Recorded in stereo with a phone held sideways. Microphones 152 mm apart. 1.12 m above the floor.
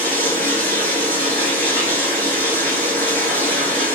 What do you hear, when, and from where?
0.0 s running water: 15° left (ahead or behind), 1.6 m